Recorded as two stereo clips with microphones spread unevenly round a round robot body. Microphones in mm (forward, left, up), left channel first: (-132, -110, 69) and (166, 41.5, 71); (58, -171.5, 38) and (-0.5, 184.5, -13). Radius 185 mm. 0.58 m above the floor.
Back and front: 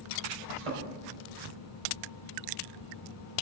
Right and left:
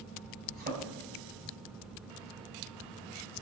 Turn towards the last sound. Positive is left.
turn(degrees=35)